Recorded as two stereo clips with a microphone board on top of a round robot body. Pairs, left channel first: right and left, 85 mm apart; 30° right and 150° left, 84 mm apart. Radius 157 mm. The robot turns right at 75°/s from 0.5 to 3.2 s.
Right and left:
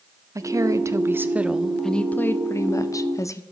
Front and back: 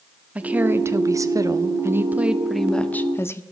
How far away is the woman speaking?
About 0.9 m.